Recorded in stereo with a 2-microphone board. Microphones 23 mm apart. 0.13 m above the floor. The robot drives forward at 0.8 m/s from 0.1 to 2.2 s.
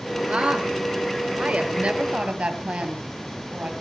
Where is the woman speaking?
55° right (ahead or behind), 2 m; by 3.7 s 50° right (ahead or behind), 2 m.